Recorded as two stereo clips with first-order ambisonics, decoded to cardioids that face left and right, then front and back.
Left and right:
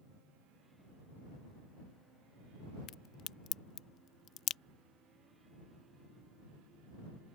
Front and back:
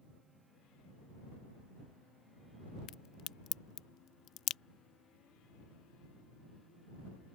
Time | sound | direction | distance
2.9 | a crack | 40° left | ?